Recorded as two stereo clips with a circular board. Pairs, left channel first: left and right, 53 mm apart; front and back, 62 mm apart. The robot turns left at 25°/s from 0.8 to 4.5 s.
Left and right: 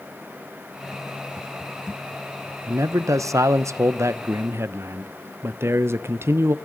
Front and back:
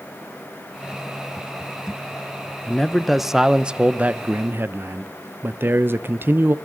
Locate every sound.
2.7 s a man speaking: 80° right, 0.6 m; by 6.5 s 125° right, 0.6 m